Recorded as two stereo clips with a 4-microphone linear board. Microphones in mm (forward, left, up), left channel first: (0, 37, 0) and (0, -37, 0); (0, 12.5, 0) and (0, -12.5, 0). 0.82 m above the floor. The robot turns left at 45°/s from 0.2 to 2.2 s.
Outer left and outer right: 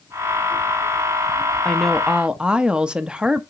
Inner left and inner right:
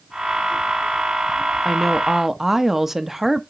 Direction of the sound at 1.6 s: 10° left (ahead or behind).